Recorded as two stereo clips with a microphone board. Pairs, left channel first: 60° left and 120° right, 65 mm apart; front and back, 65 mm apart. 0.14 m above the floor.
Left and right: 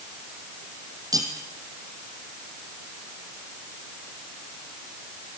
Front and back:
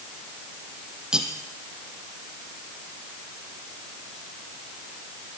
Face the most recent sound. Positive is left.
turn(degrees=-100)